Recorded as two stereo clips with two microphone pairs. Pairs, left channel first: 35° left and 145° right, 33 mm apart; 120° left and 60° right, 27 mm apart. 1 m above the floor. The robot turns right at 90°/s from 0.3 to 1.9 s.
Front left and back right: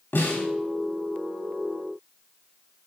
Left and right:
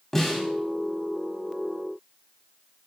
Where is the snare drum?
35° left, 2.5 m; by 0.5 s 50° left, 2.5 m.